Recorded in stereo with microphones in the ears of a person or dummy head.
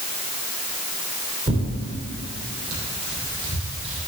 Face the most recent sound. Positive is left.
turn(degrees=-25)  # may be behind; listen again after turning